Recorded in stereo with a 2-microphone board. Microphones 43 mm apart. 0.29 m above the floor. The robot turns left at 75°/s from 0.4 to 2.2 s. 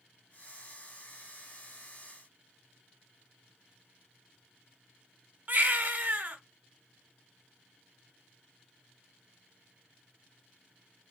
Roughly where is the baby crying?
Right.